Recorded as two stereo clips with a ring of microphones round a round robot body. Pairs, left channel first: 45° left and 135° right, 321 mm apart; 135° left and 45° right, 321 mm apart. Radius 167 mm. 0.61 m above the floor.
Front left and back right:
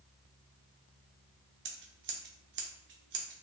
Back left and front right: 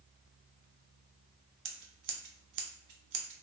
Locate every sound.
1.6 s scissors: 80° right, 0.5 m